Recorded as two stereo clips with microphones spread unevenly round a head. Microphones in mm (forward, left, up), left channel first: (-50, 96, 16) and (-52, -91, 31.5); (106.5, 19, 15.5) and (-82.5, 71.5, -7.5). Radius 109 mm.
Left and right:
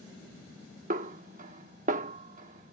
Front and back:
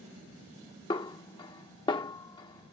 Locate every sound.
0.9 s a snare drum: 65° right